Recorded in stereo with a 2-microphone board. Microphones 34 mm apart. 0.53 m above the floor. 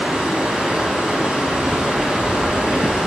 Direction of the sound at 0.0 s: 25° right (ahead or behind).